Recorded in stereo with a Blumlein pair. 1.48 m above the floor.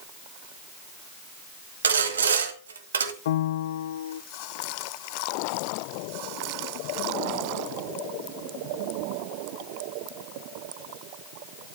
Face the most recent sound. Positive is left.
turn(degrees=55)